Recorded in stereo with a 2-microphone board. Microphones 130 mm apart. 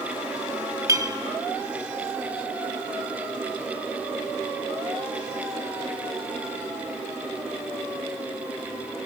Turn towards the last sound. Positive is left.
turn(degrees=-25)  # may be behind; listen again after turning